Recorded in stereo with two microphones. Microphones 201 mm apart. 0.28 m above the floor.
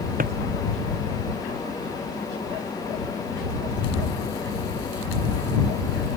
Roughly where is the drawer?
Right.